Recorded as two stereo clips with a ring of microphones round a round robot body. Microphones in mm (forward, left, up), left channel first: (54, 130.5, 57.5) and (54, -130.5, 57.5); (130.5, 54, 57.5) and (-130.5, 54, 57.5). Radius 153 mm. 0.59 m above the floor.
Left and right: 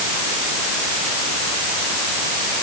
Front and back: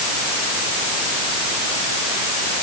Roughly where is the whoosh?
No whoosh in this recording.